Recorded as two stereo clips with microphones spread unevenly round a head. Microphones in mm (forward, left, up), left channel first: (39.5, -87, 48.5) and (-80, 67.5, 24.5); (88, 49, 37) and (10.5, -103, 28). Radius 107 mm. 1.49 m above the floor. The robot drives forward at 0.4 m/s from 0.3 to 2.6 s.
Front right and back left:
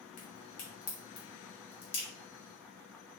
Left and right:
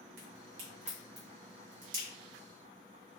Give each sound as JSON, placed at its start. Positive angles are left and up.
{"t": 0.2, "sound": "a crack", "azimuth_deg": -100, "distance_m": 2.0}